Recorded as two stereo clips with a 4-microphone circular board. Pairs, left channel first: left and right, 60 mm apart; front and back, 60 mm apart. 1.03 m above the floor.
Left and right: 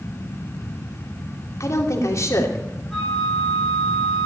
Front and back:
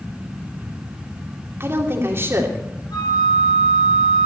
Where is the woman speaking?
130° left, 2.5 m.